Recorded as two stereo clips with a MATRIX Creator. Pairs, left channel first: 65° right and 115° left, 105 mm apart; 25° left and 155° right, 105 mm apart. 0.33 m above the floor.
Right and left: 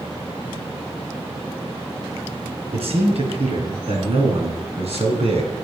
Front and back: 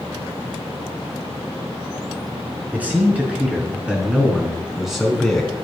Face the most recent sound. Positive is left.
turn(degrees=110)